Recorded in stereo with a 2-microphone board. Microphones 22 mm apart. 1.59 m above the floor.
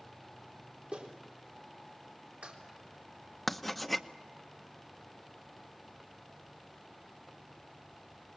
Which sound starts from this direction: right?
A clap, at 0.9 s.